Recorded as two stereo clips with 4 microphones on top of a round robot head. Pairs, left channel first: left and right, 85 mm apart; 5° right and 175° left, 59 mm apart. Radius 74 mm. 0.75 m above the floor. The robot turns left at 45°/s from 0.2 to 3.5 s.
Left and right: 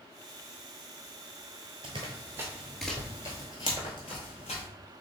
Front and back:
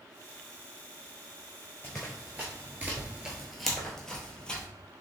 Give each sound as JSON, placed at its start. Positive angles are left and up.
{"t": 1.8, "sound": "running footsteps", "azimuth_deg": -75, "distance_m": 0.9}